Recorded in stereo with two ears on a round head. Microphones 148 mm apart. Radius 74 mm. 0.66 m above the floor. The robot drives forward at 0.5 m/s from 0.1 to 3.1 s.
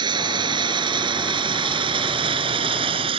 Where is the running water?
30° right (ahead or behind); by 3.2 s 35° right (ahead or behind).